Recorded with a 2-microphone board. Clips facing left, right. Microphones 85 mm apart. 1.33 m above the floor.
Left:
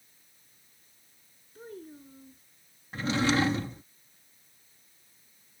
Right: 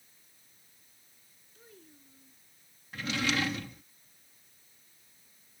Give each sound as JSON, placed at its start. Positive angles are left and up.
{"t": 1.6, "sound": "a child speaking", "side_deg": 45}
{"t": 2.9, "sound": "a drawer", "side_deg": 30}